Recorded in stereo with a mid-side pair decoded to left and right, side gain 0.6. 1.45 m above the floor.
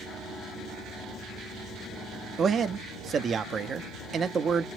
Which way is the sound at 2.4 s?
35° right.